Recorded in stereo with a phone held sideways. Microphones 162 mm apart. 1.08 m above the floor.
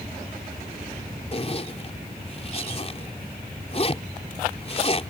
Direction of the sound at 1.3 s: 40° left (ahead or behind).